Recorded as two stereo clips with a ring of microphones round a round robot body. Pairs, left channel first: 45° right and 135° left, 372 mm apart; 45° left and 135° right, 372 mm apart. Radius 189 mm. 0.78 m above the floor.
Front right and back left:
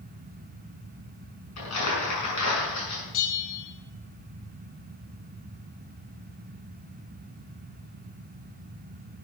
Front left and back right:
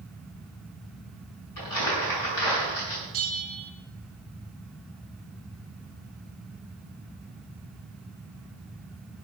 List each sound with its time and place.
1.6 s crumpling: 5° left, 5.5 m
3.1 s a bell: 85° right, 1.8 m